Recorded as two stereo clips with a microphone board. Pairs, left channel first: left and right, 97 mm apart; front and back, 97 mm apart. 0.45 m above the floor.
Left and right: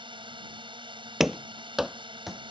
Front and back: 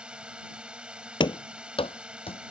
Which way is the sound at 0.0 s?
100° right.